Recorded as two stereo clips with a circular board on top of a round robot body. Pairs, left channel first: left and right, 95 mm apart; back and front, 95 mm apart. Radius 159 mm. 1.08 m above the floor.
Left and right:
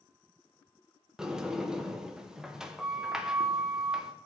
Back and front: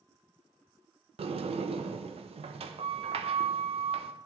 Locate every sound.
1.2 s a sliding door: 5° right, 0.6 m